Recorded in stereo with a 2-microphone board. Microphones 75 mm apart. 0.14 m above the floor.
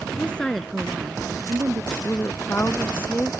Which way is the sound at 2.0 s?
30° left (ahead or behind).